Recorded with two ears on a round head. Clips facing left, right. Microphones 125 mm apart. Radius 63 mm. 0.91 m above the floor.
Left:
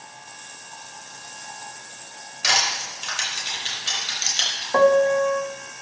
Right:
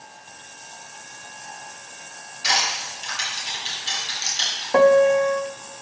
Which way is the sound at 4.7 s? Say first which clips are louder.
Right 2 dB; 15° right (ahead or behind).